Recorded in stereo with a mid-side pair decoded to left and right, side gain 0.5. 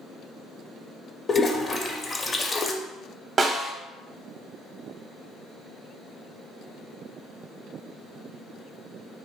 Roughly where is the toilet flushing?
Ahead left.